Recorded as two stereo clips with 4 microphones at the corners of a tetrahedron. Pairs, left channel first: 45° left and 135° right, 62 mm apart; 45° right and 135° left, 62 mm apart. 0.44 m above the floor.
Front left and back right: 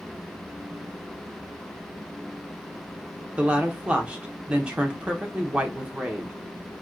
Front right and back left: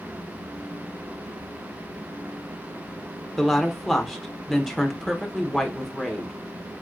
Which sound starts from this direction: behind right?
A woman speaking, at 3.4 s.